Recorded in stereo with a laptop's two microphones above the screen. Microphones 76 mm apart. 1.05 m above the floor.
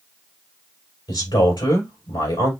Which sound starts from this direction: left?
A man speaking, at 1.1 s.